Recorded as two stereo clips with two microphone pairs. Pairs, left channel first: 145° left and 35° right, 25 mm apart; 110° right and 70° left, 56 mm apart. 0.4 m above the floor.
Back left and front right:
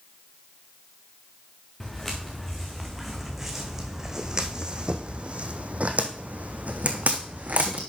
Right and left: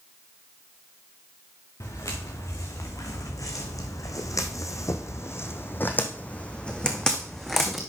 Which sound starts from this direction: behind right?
Footsteps, at 1.8 s.